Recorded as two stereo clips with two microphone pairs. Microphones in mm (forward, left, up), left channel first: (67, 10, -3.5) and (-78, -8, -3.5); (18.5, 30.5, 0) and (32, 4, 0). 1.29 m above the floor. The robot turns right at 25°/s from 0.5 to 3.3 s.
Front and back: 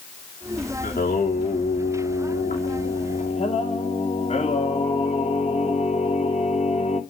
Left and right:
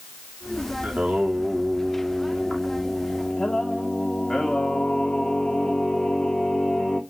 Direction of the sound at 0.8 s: 10° right.